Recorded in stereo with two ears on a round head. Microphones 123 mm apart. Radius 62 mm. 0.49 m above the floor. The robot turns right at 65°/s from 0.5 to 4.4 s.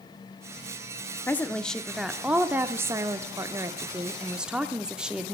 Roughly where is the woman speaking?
Centre.